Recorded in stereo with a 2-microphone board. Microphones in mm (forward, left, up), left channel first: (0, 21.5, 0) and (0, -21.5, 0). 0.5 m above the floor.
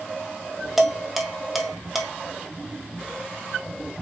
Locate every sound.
0.8 s dishes clattering: 5° right (ahead or behind), 0.7 m